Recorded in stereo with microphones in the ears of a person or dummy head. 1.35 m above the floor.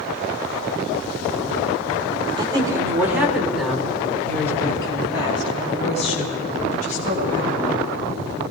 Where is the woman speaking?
25° right (ahead or behind), 5 m; by 7.8 s 55° left (ahead or behind), 8.5 m.